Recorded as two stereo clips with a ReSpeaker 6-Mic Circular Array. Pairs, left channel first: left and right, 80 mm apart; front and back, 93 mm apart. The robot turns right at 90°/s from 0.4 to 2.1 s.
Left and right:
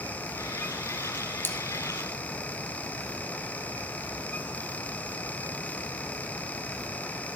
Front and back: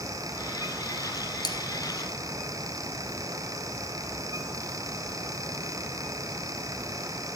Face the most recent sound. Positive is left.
turn(degrees=90)